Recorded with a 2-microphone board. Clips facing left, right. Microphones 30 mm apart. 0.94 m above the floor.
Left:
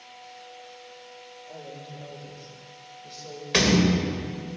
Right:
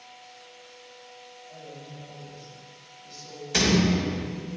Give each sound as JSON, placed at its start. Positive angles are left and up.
{"t": 1.5, "sound": "a woman speaking", "side_deg": 80, "distance_m": 3.0}
{"t": 3.5, "sound": "a door slam", "side_deg": 45, "distance_m": 3.0}